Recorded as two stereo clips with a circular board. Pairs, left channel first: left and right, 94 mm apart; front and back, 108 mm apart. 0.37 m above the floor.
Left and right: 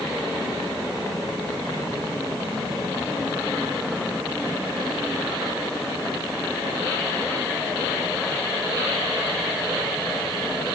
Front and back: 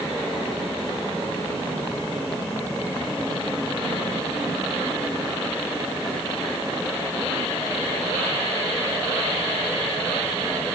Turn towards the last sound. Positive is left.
No sound to turn to.